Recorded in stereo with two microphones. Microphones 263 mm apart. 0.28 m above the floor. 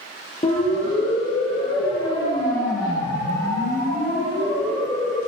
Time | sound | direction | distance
0.4 | a siren | 25° left (ahead or behind) | 7.5 m